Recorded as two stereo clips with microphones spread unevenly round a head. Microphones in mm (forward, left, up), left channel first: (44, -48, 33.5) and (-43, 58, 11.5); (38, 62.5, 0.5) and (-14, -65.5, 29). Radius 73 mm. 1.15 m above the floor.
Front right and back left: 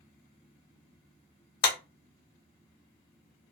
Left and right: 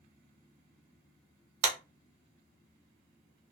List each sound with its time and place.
1.6 s a clap: 75° right, 0.7 m